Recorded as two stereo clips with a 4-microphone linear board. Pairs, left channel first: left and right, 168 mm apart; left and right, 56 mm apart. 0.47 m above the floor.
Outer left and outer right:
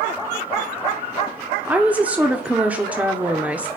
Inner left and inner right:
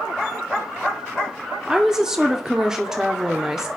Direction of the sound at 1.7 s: 10° right (ahead or behind).